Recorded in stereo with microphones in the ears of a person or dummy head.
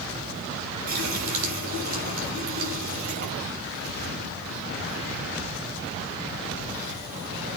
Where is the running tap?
55° right (ahead or behind), 5 m.